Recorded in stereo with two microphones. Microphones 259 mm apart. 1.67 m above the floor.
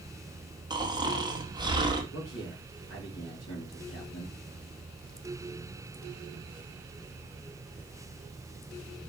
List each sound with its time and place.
0.7 s snoring: 15° right (ahead or behind), 1.3 m
2.1 s a man speaking: 70° left (ahead or behind), 2.5 m